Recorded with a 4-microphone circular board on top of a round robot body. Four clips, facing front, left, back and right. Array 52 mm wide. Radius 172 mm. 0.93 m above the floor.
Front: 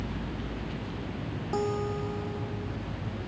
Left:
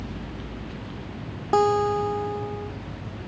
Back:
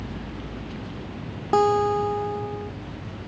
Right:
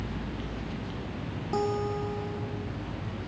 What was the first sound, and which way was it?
A guitar, 140° left.